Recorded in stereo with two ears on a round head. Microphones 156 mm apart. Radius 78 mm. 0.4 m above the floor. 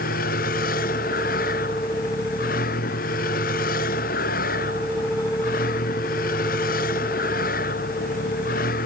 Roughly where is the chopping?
I don't hear chopping.